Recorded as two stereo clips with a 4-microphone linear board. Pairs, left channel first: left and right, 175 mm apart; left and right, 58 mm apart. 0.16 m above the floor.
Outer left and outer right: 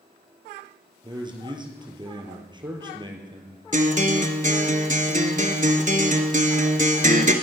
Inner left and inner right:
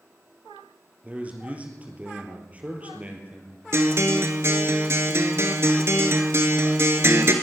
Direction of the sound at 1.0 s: 25° right (ahead or behind).